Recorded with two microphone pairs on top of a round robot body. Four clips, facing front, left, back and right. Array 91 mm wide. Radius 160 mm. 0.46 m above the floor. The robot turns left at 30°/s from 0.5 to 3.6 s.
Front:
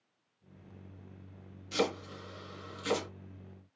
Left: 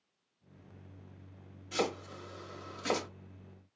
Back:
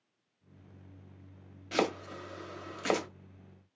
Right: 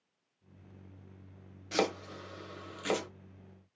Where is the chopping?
145° right, 1.0 m; by 3.1 s 175° left, 1.0 m.